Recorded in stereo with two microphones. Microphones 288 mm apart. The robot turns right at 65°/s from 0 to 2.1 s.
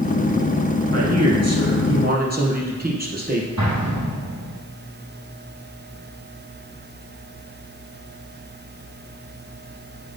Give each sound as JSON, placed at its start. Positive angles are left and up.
{"t": 0.9, "sound": "a man speaking", "azimuth_deg": -110, "distance_m": 3.0}
{"t": 3.6, "sound": "an explosion", "side_deg": -70, "distance_m": 3.5}